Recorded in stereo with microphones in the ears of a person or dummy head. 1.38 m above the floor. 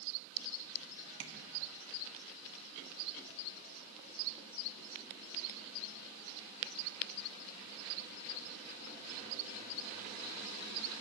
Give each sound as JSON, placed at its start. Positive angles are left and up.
{"t": 1.2, "sound": "tapping", "side_deg": -65, "distance_m": 2.0}